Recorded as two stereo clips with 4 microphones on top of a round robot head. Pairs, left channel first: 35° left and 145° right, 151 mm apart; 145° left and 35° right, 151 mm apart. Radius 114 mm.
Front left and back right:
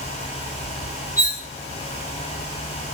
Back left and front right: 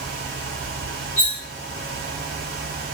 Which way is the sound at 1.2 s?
140° left.